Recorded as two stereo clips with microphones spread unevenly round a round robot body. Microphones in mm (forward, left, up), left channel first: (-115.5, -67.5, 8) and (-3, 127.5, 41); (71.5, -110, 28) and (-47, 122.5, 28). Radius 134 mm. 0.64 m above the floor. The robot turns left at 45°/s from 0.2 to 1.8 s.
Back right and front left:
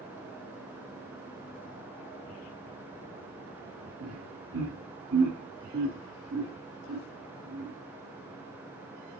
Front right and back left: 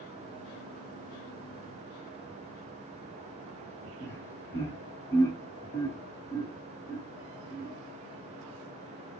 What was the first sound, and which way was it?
Laughter, 15° left.